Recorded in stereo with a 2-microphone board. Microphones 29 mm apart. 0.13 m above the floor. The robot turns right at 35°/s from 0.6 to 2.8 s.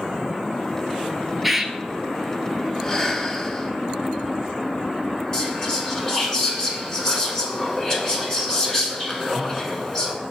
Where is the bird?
5° right (ahead or behind), 0.5 m; by 1.7 s 15° right (ahead or behind), 0.5 m.